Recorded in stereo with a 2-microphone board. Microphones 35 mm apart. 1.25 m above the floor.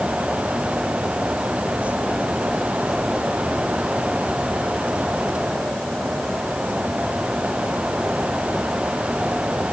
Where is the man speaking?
I don't hear a man speaking.